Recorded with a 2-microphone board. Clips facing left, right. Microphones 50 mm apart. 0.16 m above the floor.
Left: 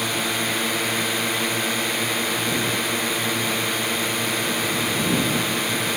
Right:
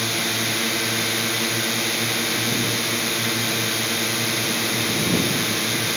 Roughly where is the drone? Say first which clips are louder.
Even; centre.